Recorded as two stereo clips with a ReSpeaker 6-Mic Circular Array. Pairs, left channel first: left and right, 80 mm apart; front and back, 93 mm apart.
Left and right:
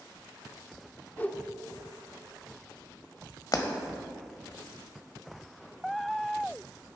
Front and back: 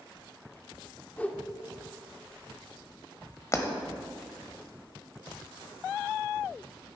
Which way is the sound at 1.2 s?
50° left.